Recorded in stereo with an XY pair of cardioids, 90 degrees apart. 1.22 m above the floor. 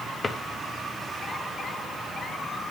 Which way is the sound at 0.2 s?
25° left.